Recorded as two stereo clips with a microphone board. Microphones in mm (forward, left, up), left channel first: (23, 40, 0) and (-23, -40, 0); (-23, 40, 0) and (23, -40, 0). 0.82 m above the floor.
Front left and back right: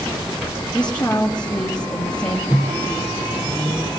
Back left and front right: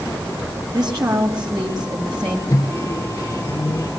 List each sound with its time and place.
0.7 s a woman speaking: 20° right, 5 m
2.5 s a microwave: 170° left, 1.1 m